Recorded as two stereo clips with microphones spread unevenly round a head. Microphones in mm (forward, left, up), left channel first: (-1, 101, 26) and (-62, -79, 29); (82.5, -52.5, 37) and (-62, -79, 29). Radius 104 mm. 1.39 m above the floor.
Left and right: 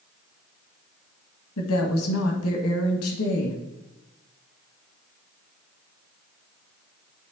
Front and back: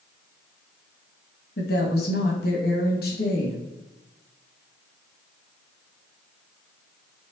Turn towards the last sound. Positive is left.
turn(degrees=50)